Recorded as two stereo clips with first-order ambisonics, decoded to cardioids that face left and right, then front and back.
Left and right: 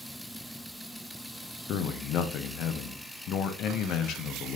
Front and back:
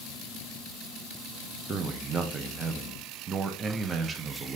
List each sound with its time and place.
1.7 s a man speaking: 120° left, 0.5 m